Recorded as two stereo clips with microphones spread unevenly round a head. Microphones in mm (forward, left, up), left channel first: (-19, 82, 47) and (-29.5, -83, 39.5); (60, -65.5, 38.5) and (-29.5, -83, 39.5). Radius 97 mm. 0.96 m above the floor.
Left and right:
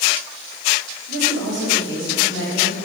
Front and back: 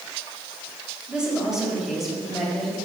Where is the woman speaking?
85° right, 5 m; by 2.8 s 75° right, 6.5 m.